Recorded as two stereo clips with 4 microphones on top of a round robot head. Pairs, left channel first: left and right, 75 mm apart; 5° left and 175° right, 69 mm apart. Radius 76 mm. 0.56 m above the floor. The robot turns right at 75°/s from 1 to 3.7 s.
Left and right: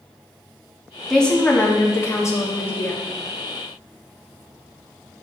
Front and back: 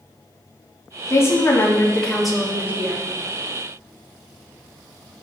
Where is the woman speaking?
5° left, 1.5 m; by 3.0 s 150° left, 1.5 m.